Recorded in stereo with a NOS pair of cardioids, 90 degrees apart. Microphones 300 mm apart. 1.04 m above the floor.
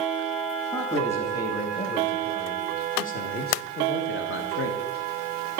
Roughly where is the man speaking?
Ahead.